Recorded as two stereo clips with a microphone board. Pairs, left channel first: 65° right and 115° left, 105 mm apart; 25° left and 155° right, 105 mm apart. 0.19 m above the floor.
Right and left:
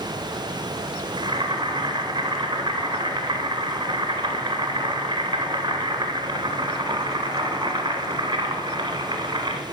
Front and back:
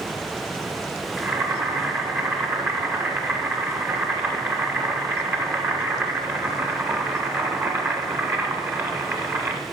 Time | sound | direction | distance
1.2 | boiling | 145° left | 1.3 m